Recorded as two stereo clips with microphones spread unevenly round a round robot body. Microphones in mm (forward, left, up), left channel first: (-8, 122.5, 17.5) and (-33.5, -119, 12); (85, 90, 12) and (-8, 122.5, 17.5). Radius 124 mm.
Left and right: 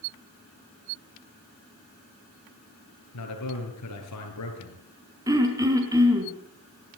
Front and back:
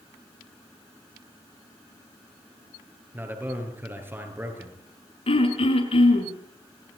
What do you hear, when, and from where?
3.1 s a man speaking: 95° left, 8 m
5.3 s throat clearing: 20° right, 5.5 m